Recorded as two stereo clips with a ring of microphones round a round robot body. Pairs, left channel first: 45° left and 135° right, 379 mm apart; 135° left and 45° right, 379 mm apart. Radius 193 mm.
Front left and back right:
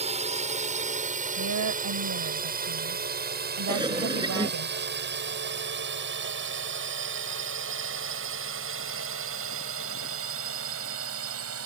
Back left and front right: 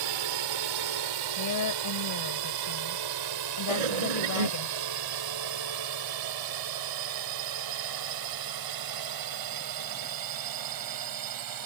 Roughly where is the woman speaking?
Behind.